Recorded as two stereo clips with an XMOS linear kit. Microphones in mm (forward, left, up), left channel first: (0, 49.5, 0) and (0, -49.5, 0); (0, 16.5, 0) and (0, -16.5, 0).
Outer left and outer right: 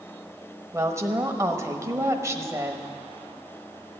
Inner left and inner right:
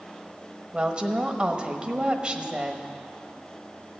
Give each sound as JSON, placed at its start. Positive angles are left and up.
{"t": 0.7, "sound": "a woman speaking", "side_deg": -30, "distance_m": 1.1}